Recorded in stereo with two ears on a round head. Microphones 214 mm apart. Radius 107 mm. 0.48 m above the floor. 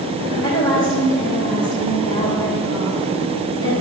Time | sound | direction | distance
0.3 | a woman speaking | 20° left (ahead or behind) | 2 m